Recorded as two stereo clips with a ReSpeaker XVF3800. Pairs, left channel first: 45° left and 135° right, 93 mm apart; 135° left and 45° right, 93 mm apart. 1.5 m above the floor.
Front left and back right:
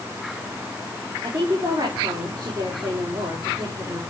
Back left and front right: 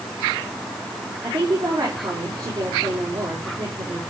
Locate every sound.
1.2 s a woman speaking: 95° right, 4 m